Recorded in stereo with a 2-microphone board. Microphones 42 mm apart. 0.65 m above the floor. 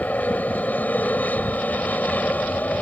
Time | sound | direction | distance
0.0 | an aircraft | 40° left (ahead or behind) | ?